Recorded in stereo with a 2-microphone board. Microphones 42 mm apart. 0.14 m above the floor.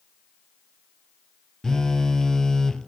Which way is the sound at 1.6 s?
15° left (ahead or behind).